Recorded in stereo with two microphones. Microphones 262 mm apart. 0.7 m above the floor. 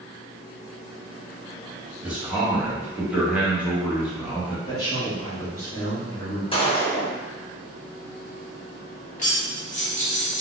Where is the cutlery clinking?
30° left (ahead or behind), 1.0 m.